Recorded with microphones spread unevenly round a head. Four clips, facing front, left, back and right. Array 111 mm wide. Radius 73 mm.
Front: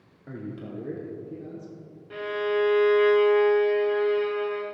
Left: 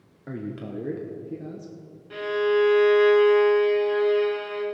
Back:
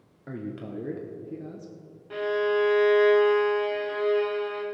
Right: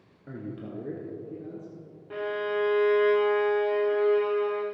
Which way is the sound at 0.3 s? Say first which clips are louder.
Left 4 dB, back 1 dB; 175° left.